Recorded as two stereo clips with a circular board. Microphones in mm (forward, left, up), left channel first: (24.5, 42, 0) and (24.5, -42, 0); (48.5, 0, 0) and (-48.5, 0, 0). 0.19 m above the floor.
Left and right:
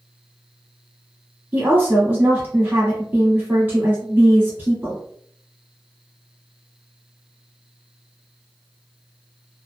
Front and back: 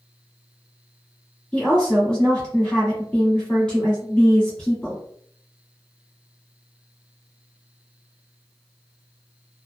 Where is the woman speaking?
65° right, 1.2 m.